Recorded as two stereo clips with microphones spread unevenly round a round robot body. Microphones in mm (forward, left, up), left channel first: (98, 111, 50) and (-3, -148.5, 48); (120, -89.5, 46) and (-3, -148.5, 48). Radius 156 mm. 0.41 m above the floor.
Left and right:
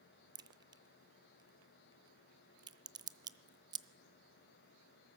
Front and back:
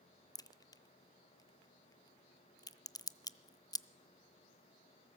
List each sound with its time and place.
0.3 s a crack: 35° right, 0.5 m